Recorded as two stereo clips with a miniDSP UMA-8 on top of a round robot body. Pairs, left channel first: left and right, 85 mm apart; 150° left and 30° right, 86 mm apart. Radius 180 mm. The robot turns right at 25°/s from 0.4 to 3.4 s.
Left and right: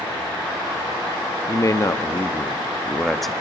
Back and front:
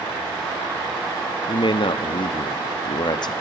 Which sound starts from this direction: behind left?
A man speaking, at 1.5 s.